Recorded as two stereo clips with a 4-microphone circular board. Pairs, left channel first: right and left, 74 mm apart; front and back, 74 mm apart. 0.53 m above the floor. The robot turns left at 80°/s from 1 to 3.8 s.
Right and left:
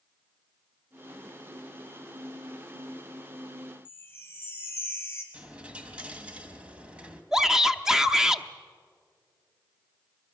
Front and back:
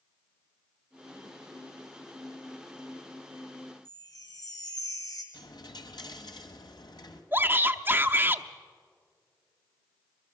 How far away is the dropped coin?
About 1.3 m.